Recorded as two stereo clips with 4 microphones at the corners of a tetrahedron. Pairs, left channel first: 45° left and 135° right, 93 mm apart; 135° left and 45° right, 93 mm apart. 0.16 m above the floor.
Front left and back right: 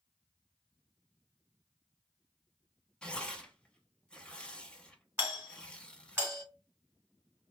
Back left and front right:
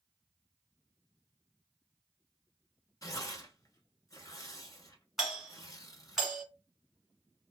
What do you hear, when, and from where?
3.0 s tearing paper: 120° left, 0.7 m
5.2 s a doorbell: 135° right, 1.6 m